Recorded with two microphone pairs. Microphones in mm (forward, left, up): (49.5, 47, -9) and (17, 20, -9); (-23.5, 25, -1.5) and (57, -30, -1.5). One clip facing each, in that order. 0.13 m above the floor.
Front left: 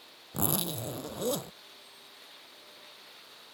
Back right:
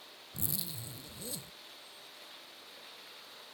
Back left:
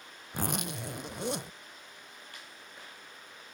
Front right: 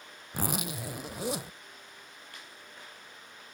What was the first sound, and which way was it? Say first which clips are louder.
A zipper: front left 11 dB, front right 1 dB; 55° left.